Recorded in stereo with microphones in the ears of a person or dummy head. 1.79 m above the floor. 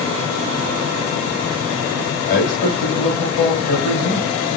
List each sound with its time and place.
2.3 s a man speaking: 55° left (ahead or behind), 2.5 m